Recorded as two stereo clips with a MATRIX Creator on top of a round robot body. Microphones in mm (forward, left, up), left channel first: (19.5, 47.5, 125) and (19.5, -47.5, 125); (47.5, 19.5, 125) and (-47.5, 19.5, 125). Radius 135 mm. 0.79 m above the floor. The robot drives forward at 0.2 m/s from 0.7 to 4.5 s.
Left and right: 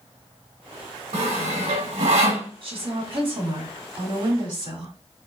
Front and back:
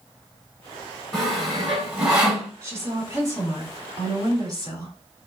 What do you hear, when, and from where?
1.1 s sawing: 90° right, 1.7 m; by 2.5 s 100° right, 1.8 m
2.6 s a woman speaking: 115° right, 2 m; by 4.9 s 125° right, 2 m